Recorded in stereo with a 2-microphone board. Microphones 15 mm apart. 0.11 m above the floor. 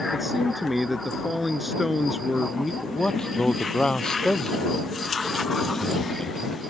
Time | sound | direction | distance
0.1 | a man speaking | 10° right (ahead or behind) | ?
2.8 | a man speaking | 60° left (ahead or behind) | ?